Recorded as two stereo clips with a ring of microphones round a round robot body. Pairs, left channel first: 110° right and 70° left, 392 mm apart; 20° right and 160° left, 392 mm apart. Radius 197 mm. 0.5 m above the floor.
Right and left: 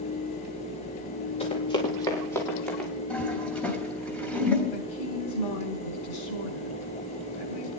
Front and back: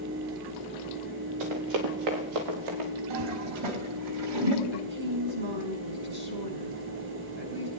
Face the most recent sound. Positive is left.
turn(degrees=-140)